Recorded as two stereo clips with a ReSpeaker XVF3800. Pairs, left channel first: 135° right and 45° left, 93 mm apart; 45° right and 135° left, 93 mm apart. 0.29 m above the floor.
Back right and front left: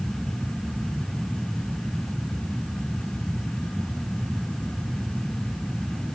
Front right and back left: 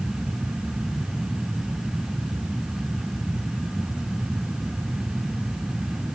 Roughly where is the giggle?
I don't hear a giggle.